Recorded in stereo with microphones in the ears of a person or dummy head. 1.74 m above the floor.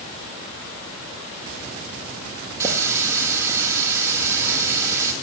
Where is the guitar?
No guitar in this recording.